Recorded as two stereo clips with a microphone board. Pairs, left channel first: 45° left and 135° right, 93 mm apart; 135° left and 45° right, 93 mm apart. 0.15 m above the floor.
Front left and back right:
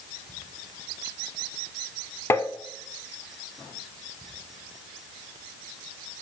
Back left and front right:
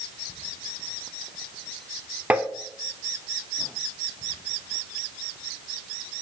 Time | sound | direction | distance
2.3 | tapping | 15° left | 0.5 m